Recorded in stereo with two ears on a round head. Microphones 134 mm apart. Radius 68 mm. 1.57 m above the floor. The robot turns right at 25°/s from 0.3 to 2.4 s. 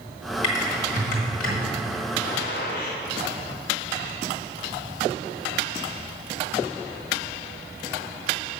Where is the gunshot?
60° left (ahead or behind), 1.1 m; by 3.0 s 65° left (ahead or behind), 1.1 m.